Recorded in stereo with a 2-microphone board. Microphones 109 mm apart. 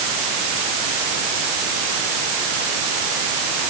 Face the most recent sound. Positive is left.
No sound to turn to.